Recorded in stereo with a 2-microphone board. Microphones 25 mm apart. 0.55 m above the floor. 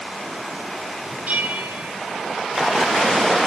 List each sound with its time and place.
1.3 s a bell: 75° right (ahead or behind), 3.5 m